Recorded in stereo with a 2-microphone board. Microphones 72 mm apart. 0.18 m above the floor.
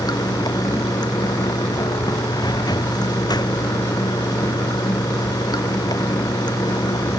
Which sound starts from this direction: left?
Running water, at 0.0 s.